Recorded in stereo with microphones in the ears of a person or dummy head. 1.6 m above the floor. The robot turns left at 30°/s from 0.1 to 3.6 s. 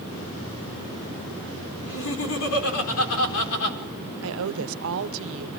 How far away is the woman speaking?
About 1.2 m.